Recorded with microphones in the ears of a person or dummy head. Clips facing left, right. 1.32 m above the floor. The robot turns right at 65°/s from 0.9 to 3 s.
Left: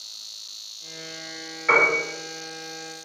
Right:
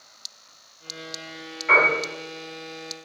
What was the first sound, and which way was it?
A piano, 60° left (ahead or behind).